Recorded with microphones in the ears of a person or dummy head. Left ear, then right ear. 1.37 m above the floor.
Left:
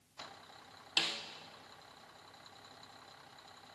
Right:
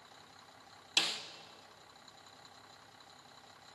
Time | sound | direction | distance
1.0 | a snare drum | 10° right (ahead or behind) | 1.1 m